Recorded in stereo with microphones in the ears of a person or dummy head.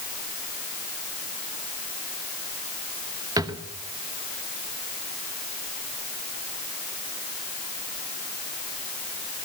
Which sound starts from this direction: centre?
A drawer, at 3.4 s.